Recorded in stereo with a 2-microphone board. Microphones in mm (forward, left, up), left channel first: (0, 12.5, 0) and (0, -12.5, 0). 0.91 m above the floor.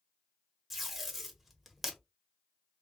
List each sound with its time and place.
0.7 s tape being pulled: 5° right (ahead or behind), 0.9 m